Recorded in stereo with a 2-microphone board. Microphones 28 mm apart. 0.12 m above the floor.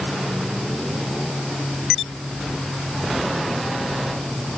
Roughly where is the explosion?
No explosion in this recording.